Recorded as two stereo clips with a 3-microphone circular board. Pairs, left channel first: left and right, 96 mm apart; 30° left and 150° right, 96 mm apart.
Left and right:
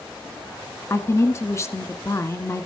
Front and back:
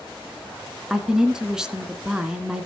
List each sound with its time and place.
0.9 s a woman speaking: 130° left, 1.4 m